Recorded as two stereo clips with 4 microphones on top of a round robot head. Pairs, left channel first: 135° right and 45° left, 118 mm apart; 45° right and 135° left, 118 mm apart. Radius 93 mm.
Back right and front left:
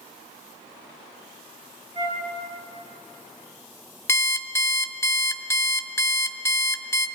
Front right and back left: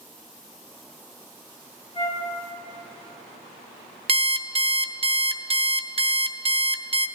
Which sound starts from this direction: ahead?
A flute, at 1.9 s.